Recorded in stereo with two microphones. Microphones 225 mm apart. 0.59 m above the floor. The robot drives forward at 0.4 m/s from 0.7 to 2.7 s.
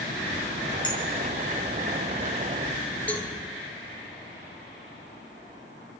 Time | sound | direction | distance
0.8 | a clink | 20° left (ahead or behind) | 5.5 m
3.1 | a cowbell | 5° left (ahead or behind) | 1.2 m